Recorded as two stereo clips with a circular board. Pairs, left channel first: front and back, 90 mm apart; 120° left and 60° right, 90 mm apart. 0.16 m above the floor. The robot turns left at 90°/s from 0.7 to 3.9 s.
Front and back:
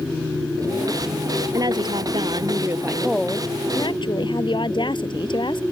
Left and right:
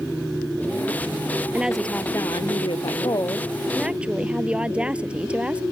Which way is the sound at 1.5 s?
130° right.